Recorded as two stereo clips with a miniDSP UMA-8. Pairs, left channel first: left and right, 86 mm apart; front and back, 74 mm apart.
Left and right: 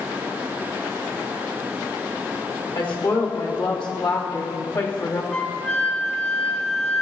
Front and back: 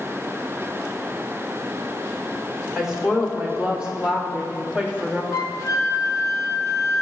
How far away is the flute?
About 0.5 m.